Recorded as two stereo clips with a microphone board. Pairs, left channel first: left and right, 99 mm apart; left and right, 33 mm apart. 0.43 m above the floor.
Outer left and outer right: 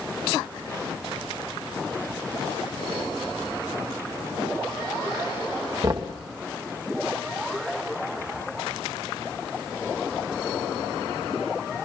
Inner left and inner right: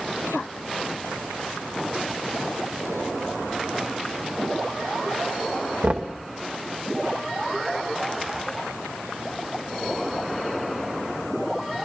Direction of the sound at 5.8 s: 40° right (ahead or behind).